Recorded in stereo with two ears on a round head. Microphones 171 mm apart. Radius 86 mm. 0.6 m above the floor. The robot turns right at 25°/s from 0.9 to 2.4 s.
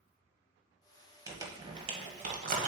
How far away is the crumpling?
About 1.4 m.